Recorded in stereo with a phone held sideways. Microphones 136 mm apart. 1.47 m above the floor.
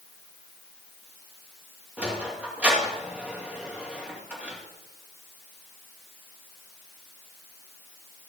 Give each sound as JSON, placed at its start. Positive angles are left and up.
{"t": 2.0, "sound": "a sliding door", "side_deg": -10, "distance_m": 2.5}